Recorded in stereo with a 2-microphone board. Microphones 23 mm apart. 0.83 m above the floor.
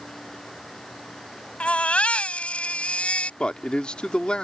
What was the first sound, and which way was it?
A baby crying, 70° left (ahead or behind).